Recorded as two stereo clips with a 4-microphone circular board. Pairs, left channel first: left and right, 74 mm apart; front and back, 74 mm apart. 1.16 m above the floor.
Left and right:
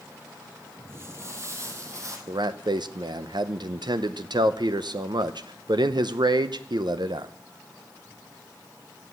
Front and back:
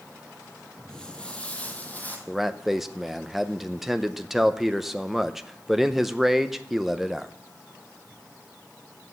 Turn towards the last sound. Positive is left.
turn(degrees=-95)